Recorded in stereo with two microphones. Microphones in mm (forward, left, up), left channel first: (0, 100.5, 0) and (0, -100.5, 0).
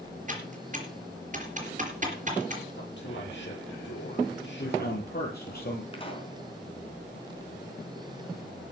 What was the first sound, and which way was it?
Typing on a keyboard, 40° right (ahead or behind).